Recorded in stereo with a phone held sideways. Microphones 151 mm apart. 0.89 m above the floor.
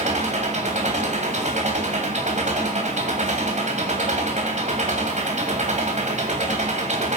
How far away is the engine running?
About 2.5 m.